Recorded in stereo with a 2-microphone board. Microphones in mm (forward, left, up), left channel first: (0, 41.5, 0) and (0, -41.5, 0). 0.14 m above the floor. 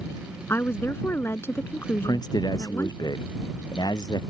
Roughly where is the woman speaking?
Left.